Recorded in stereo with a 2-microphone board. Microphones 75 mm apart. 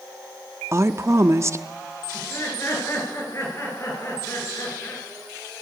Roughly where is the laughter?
Left.